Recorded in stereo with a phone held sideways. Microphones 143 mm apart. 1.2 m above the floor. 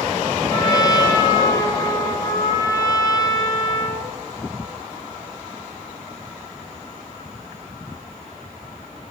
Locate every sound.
0.5 s a trumpet: 25° left (ahead or behind), 4.5 m